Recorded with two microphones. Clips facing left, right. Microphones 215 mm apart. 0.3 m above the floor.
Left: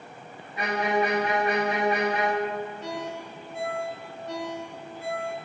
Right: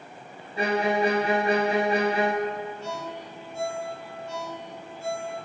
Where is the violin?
30° right (ahead or behind), 1.2 m.